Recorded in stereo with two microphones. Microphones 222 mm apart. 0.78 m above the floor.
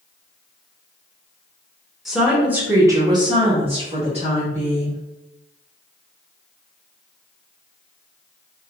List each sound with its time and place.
2.0 s a woman speaking: centre (ahead or behind), 1.0 m; by 5.0 s 25° right (ahead or behind), 1.3 m